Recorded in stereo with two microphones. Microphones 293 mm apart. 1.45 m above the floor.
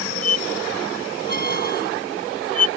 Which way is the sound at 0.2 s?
30° left (ahead or behind).